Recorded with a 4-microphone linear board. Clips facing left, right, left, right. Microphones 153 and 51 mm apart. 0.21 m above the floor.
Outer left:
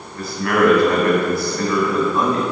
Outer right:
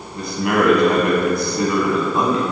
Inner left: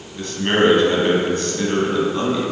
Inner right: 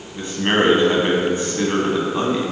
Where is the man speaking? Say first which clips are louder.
Outer left 1 dB, inner left 1 dB; 20° right (ahead or behind), 1.5 m.